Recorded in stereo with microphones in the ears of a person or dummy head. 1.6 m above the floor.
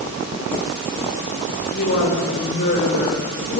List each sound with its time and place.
1.7 s a woman speaking: 60° left (ahead or behind), 5.5 m; by 3.6 s 50° left (ahead or behind), 6 m